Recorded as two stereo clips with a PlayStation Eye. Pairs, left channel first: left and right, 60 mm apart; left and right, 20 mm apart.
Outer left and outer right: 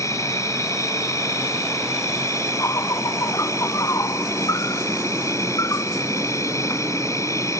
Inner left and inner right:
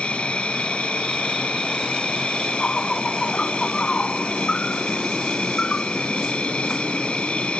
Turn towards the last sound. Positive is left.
turn(degrees=55)  # may be behind; listen again after turning